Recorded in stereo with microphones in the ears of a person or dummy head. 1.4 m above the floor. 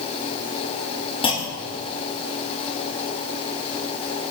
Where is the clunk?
20° left (ahead or behind), 2 m.